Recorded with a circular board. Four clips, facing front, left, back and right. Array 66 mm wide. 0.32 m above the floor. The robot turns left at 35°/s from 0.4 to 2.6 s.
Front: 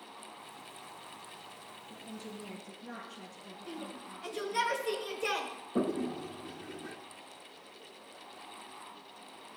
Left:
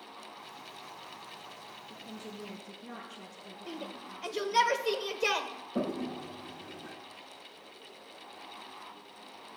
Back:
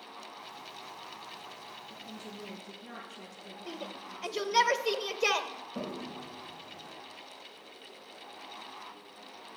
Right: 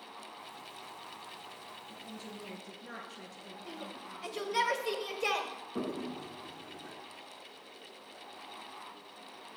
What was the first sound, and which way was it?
A woman speaking, 65° right.